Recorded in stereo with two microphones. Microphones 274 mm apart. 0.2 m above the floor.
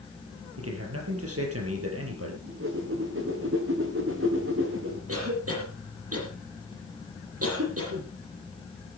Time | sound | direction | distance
0.6 | a man speaking | 55° right (ahead or behind) | 5.5 m
2.4 | a whoosh | 50° right (ahead or behind) | 4 m
5.1 | a cough | 55° right (ahead or behind) | 7 m